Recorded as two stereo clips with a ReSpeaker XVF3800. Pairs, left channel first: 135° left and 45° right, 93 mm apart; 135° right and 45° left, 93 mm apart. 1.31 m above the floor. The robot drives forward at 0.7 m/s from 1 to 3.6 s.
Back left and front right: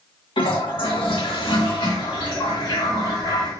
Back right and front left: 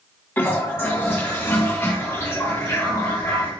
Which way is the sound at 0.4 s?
160° left.